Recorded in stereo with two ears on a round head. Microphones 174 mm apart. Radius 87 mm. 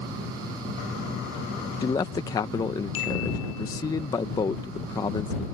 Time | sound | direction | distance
1.8 | a man speaking | 20° left (ahead or behind) | ?